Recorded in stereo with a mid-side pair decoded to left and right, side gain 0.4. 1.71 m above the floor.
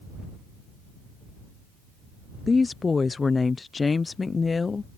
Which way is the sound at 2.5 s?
35° left.